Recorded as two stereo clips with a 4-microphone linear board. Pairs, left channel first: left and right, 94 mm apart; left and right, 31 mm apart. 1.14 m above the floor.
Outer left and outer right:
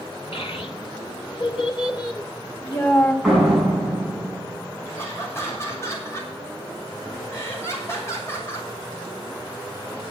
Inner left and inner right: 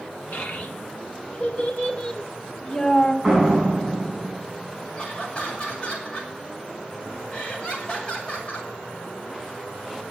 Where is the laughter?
30° left (ahead or behind), 6.5 m.